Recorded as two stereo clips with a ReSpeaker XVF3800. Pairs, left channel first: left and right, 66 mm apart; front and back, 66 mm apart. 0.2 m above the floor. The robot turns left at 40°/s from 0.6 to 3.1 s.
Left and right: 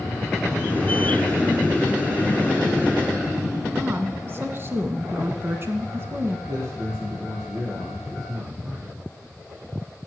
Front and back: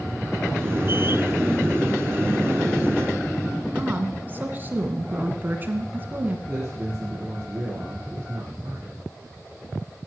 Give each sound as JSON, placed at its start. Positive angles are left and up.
{"t": 3.8, "sound": "a woman speaking", "azimuth_deg": -125, "distance_m": 2.0}
{"t": 6.5, "sound": "a man speaking", "azimuth_deg": -110, "distance_m": 5.0}